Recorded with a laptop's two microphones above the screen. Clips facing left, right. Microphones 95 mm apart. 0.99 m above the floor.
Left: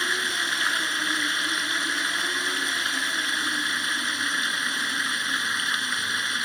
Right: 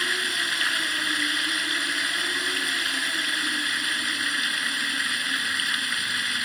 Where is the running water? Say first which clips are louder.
Left 1 dB; 25° left (ahead or behind).